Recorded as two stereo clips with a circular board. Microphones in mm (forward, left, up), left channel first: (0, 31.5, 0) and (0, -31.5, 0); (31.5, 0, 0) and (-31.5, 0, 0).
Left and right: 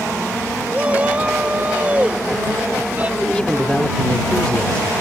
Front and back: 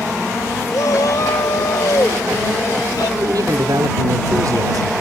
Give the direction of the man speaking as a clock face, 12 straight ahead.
7 o'clock.